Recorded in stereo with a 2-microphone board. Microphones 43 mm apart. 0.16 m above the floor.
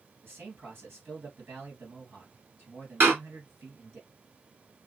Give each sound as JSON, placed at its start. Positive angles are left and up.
{"t": 0.2, "sound": "a man speaking", "side_deg": -65, "distance_m": 3.0}
{"t": 3.0, "sound": "a door slam", "side_deg": -60, "distance_m": 1.9}